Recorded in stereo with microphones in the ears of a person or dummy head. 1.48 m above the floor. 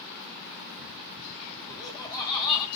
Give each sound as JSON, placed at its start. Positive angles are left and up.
{"t": 1.7, "sound": "laughter", "side_deg": 20, "distance_m": 0.7}